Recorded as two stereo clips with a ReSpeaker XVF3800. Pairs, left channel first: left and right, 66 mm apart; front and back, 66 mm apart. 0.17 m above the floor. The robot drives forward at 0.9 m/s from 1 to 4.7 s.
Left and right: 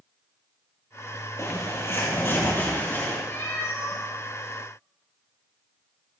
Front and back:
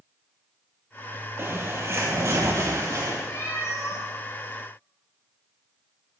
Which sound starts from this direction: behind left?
A bird, at 1.4 s.